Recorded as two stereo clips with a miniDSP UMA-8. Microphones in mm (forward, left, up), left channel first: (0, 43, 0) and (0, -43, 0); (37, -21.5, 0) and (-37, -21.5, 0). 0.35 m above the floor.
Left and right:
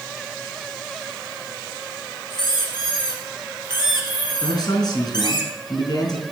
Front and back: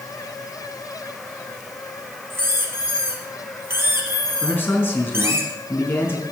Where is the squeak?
125° left, 3.5 m.